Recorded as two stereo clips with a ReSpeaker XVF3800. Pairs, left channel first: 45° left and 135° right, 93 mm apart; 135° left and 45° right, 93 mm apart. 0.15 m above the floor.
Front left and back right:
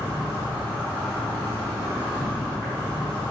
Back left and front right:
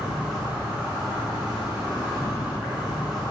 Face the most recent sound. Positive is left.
turn(degrees=-125)